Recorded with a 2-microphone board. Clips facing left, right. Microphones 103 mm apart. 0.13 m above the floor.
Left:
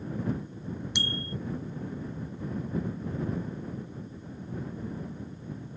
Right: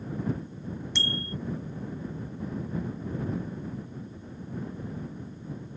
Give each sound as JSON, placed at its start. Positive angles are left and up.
{"t": 0.9, "sound": "a bicycle bell", "side_deg": 15}